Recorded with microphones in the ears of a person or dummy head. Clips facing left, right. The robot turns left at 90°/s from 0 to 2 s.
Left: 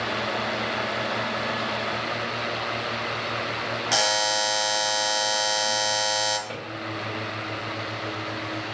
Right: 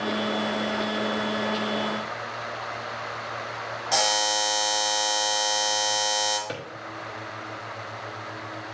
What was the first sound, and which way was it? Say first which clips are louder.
A buzzer: right 1 dB; 10° left (ahead or behind).